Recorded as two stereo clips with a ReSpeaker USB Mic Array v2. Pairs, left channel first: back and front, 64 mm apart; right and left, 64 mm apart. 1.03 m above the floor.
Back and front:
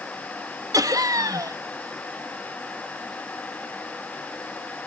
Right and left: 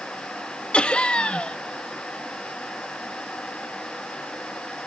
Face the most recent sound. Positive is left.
turn(degrees=-15)